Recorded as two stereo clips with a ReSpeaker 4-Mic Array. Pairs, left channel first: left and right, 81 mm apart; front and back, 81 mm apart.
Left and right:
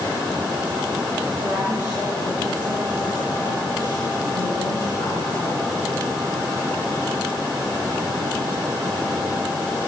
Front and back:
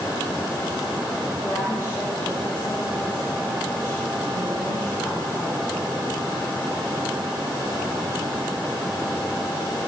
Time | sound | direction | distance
1.4 | a woman speaking | 60° right | 9 m